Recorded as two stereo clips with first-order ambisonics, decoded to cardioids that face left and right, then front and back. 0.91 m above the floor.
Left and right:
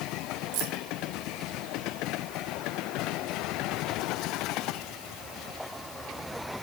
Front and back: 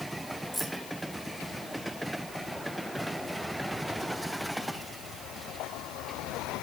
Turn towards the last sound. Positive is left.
turn(degrees=-85)